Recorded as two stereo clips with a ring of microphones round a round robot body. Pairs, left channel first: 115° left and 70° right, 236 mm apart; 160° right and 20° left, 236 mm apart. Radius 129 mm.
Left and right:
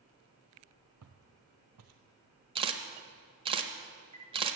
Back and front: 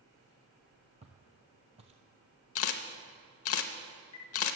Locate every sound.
1.0 s footsteps: 45° right, 0.9 m
2.5 s a camera shutter: 135° right, 0.7 m